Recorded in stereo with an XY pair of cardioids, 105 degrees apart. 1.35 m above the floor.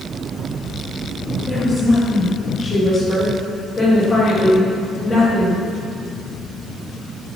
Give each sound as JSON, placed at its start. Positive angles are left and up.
{"t": 1.5, "sound": "a woman speaking", "azimuth_deg": 20, "distance_m": 2.5}